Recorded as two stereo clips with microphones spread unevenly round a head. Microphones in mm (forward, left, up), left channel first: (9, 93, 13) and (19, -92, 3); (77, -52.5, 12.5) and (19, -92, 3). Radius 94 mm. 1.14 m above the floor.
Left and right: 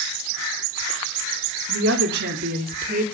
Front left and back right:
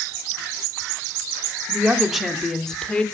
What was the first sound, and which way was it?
A woman speaking, 70° right.